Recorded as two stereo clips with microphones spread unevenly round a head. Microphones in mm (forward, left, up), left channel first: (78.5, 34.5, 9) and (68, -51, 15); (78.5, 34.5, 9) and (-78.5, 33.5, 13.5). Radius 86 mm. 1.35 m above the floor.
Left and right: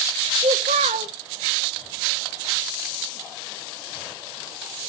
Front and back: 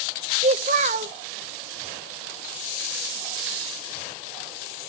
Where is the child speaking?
125° right, 0.7 m.